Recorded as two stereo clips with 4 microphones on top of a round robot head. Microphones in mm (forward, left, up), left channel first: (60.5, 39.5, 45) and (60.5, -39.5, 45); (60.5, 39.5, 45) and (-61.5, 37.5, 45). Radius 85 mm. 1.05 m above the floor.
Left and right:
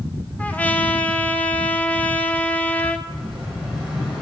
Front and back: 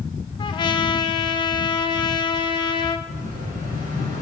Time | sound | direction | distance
0.4 | a trumpet | 25° left | 0.7 m
3.1 | an explosion | straight behind | 3 m